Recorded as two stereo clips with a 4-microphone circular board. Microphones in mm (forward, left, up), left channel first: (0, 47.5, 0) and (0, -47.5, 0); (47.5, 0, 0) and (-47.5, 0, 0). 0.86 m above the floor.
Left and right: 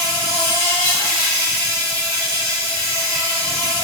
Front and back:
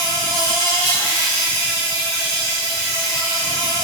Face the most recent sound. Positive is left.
turn(degrees=40)